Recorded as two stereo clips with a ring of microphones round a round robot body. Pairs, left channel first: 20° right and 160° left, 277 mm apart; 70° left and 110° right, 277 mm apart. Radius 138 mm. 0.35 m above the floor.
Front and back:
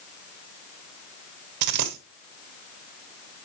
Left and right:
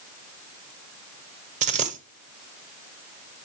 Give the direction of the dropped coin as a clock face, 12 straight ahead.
6 o'clock.